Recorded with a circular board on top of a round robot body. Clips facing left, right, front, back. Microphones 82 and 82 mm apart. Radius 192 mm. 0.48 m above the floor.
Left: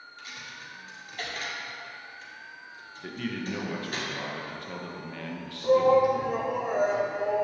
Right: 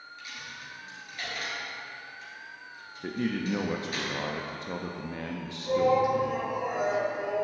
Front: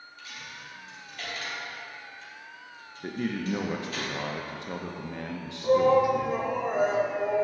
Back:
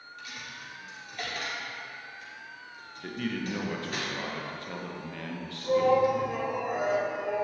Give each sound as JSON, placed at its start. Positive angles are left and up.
{"t": 0.2, "sound": "a dropped coin", "azimuth_deg": 145, "distance_m": 1.5}
{"t": 3.0, "sound": "a man speaking", "azimuth_deg": -50, "distance_m": 0.9}
{"t": 5.6, "sound": "a shout", "azimuth_deg": 50, "distance_m": 1.1}